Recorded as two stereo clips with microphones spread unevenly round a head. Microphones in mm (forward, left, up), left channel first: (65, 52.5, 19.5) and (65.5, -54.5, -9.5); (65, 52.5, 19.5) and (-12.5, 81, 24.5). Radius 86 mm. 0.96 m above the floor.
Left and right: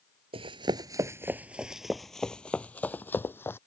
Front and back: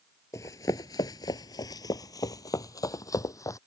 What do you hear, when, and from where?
0.3 s running footsteps: 70° right; by 3.6 s 30° left